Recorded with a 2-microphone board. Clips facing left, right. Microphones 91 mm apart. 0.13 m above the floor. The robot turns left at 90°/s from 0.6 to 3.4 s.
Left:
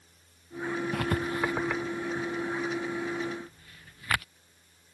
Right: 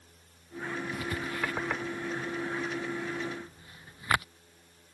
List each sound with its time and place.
0.9 s writing: 65° left (ahead or behind); by 4.2 s 20° right (ahead or behind)